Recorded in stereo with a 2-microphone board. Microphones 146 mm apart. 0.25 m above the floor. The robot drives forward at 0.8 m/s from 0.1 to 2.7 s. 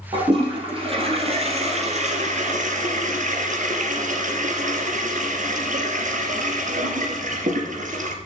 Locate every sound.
0.1 s a toilet flushing: 35° right (ahead or behind), 4 m; by 8.1 s 60° right (ahead or behind), 3 m